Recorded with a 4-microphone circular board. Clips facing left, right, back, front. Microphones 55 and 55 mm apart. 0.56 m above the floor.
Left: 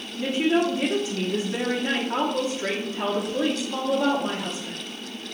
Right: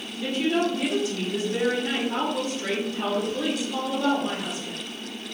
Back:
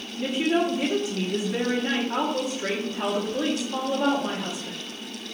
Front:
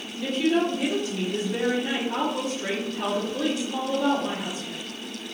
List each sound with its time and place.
0.2 s a woman speaking: 130° left, 0.9 m